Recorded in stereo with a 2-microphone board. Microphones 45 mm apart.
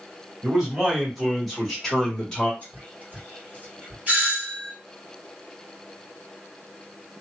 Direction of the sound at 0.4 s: 10° right (ahead or behind).